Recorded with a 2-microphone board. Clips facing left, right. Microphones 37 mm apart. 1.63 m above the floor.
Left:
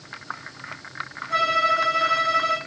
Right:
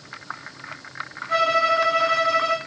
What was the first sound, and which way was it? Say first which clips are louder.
A violin: right 1 dB; 50° right (ahead or behind).